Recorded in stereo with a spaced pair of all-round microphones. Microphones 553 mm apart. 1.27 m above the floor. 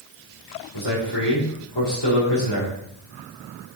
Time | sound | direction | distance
0.7 | a man speaking | 50° left (ahead or behind) | 2.5 m